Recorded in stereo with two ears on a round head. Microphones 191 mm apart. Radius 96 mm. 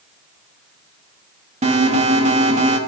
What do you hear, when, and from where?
1.6 s an alarm: 30° right (ahead or behind), 2.5 m